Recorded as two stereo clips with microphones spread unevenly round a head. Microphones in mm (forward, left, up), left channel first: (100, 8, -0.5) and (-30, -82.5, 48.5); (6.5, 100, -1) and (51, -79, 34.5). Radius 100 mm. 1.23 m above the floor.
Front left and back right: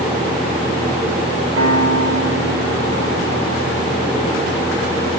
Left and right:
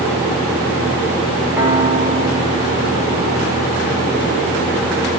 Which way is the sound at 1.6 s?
155° right.